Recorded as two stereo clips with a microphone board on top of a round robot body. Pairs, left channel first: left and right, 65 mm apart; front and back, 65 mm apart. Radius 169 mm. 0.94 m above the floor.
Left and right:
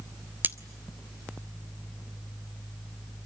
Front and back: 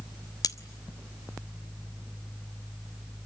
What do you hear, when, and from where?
0.4 s cutlery clinking: 25° right, 0.9 m